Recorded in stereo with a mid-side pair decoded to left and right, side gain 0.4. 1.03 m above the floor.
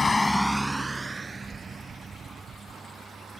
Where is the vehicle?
35° left; by 3.4 s 50° right.